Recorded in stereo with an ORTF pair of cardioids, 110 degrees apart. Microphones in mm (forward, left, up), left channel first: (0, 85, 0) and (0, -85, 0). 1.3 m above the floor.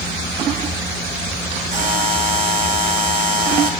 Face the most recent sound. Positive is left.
turn(degrees=-50)